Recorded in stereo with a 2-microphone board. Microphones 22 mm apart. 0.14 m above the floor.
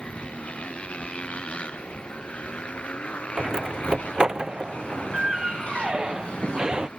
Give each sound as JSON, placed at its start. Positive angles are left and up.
{"t": 0.0, "sound": "a motorcycle", "side_deg": 80}
{"t": 3.4, "sound": "a door slam", "side_deg": -40}